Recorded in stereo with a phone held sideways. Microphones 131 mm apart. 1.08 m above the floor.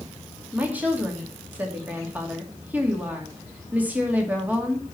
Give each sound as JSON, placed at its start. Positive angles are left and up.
{"t": 0.5, "sound": "a woman speaking", "side_deg": -10, "distance_m": 2.5}